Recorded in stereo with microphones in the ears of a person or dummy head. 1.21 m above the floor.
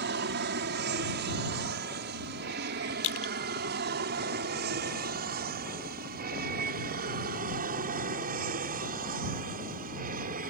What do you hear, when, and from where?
0.0 s an aircraft: 50° right (ahead or behind); by 10.5 s 45° right (ahead or behind)
3.0 s crushing: 65° left (ahead or behind)